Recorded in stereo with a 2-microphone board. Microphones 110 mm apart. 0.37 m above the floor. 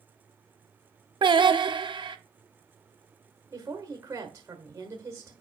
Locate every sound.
1.2 s singing: 50° right (ahead or behind), 0.6 m
3.5 s a woman speaking: 30° right (ahead or behind), 1.4 m